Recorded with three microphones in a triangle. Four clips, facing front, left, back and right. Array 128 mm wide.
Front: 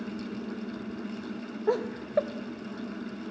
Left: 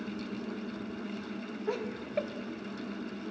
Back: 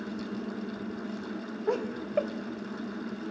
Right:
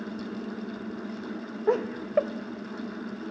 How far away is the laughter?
About 0.9 m.